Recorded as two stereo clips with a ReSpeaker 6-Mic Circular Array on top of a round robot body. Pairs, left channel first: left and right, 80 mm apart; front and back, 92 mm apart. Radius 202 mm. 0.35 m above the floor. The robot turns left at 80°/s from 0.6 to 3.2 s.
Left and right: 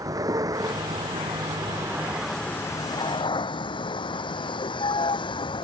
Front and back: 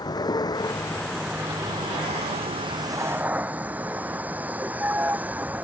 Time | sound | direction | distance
0.0 | a vehicle | 45° right | ?